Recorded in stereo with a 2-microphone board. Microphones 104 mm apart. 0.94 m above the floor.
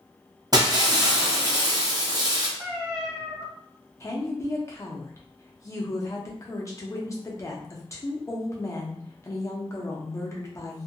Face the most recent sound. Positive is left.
turn(degrees=30)  # may be behind; listen again after turning